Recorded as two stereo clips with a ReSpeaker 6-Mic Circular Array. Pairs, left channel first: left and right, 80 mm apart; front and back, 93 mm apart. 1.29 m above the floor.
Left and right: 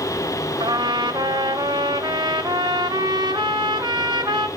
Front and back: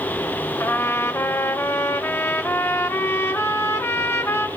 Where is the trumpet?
65° right, 1.2 m.